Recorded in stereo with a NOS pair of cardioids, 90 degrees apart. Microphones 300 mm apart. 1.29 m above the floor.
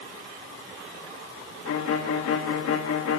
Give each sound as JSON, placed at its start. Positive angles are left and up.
{"t": 1.6, "sound": "a violin", "azimuth_deg": 55, "distance_m": 1.9}